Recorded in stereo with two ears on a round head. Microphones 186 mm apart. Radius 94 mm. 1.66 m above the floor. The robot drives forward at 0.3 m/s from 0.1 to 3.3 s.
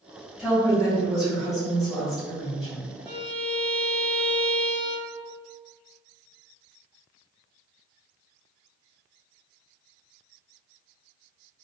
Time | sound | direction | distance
0.4 | a woman speaking | centre (ahead or behind) | 1.9 m
3.0 | a violin | 60° right (ahead or behind) | 1.3 m